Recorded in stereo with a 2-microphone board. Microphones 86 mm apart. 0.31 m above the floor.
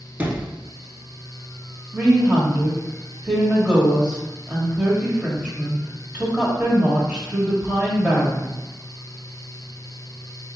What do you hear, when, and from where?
0.2 s a sliding door: 15° right (ahead or behind), 1.0 m
1.9 s a woman speaking: 10° right (ahead or behind), 1.3 m